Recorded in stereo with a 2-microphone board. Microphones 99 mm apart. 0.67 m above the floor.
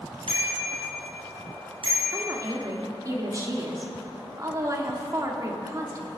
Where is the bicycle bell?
75° right (ahead or behind), 6 m; by 2.3 s 70° right (ahead or behind), 6.5 m.